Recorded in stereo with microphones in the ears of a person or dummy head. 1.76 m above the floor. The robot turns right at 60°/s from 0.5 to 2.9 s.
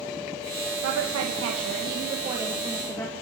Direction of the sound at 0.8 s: 110° right.